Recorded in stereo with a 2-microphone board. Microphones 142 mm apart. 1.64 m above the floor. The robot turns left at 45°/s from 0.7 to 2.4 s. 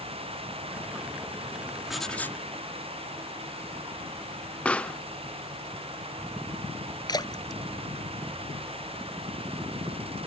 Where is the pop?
10° left (ahead or behind).